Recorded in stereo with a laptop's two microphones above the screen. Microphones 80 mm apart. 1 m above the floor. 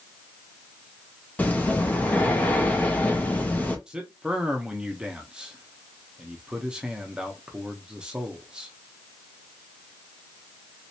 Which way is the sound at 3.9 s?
10° right (ahead or behind).